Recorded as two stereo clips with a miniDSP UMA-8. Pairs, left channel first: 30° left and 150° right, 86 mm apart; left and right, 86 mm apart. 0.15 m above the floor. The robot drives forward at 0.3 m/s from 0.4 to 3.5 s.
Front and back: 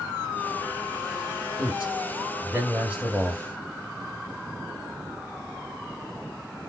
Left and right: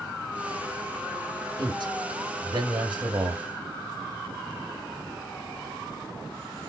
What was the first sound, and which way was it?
A man speaking, 75° right.